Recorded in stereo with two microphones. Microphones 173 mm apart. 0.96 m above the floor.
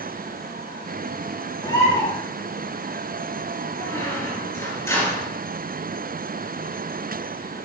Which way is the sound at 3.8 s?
15° left (ahead or behind).